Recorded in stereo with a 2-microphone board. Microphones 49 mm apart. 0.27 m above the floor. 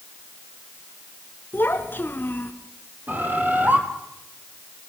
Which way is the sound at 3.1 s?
35° right (ahead or behind).